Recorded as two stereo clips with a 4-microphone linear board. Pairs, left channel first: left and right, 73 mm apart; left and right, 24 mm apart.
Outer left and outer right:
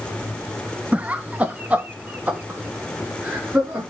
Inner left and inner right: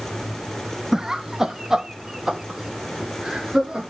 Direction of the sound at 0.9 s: 20° right (ahead or behind).